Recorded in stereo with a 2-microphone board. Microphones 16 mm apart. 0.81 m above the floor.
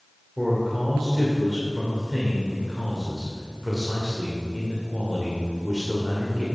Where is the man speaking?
25° right (ahead or behind), 2.5 m.